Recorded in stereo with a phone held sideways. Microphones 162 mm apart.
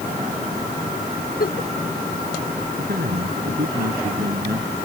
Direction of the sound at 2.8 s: 75° right (ahead or behind).